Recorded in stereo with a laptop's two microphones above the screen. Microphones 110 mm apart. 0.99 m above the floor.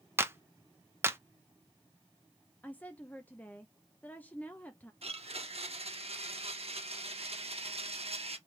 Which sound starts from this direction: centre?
A woman speaking, at 2.6 s.